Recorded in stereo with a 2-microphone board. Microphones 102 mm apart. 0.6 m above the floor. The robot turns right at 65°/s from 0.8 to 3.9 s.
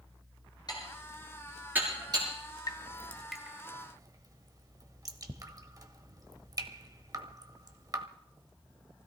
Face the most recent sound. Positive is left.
turn(degrees=-40)  # may be behind; listen again after turning